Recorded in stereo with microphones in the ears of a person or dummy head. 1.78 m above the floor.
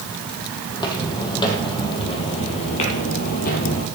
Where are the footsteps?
15° left (ahead or behind), 3 m; by 3.9 s 30° left (ahead or behind), 2 m.